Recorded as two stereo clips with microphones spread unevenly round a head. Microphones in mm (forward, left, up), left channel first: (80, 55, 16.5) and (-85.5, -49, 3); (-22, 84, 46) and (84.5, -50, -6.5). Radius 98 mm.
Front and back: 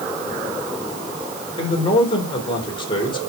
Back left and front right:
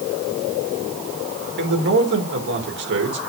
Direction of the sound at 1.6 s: 35° right.